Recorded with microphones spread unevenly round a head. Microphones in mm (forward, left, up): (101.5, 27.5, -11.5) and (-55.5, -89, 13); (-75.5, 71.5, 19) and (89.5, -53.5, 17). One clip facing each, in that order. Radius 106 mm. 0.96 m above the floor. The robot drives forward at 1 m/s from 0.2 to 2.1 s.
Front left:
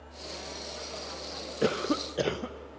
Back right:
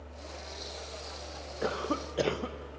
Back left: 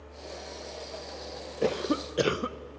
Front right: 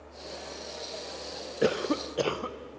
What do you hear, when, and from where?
1.6 s a cough: 30° left, 0.7 m; by 2.6 s 105° left, 0.6 m